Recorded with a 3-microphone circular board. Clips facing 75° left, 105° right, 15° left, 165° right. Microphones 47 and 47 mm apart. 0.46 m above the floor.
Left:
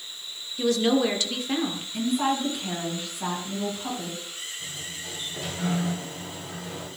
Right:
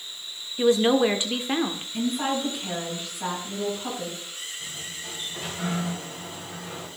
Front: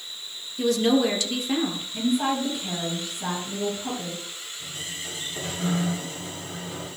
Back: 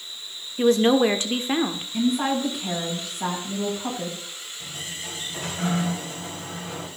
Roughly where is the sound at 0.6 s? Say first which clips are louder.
Right 3 dB, back 3 dB; behind right.